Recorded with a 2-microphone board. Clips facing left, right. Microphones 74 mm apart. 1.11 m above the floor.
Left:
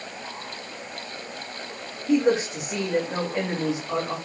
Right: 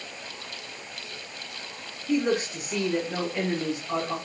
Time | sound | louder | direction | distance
2.1 | a man speaking | left 4 dB | 20° left (ahead or behind) | 2.5 m